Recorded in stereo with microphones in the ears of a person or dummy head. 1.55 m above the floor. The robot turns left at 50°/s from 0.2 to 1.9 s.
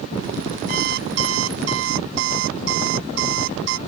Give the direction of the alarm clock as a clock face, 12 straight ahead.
1 o'clock.